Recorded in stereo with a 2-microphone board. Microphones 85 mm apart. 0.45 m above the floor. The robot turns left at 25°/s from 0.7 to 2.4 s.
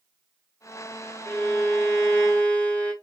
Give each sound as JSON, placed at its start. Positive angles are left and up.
{"t": 1.2, "sound": "a violin", "side_deg": 30, "distance_m": 1.3}